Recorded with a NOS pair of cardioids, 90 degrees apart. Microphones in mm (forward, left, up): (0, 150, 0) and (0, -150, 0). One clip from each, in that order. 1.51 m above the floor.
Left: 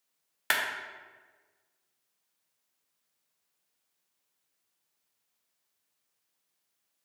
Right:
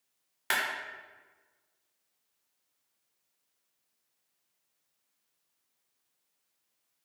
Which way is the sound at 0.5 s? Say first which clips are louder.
Left 1 dB; 20° left.